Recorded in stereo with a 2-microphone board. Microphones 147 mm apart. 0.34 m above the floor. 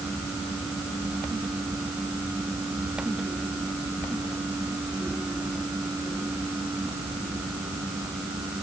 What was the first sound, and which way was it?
Only background noise.